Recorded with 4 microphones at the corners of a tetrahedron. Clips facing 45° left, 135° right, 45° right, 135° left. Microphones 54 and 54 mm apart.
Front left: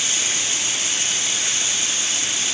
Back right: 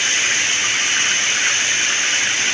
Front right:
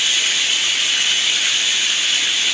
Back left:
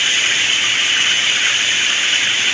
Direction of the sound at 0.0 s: 170° right.